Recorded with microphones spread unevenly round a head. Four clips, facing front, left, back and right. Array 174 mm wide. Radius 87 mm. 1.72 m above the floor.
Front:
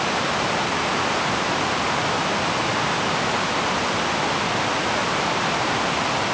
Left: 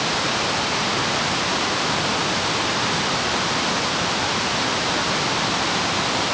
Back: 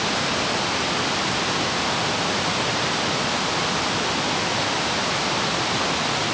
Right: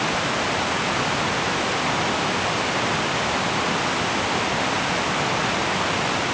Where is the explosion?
I don't hear an explosion.